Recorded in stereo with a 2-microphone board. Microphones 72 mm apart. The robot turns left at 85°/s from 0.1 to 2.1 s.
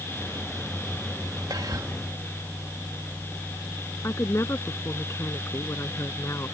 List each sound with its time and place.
1.5 s whispering: 90° right; by 1.9 s 125° right
4.0 s a woman speaking: 40° left (ahead or behind)